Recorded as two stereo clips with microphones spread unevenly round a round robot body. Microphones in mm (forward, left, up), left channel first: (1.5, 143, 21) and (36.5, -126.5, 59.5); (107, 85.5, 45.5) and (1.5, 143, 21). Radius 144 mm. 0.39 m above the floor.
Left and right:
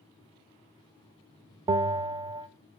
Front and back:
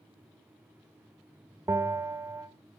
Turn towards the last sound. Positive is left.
turn(degrees=-160)